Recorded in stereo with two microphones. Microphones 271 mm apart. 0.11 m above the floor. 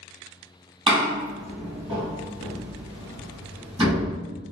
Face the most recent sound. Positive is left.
turn(degrees=-20)  # may be behind; listen again after turning